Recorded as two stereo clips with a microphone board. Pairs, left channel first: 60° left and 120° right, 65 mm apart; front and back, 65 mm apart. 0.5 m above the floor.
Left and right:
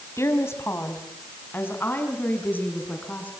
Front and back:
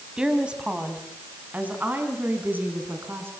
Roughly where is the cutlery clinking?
No cutlery clinking in this recording.